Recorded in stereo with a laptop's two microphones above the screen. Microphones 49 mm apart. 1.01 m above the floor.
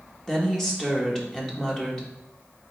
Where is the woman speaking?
10° left (ahead or behind), 1.0 m.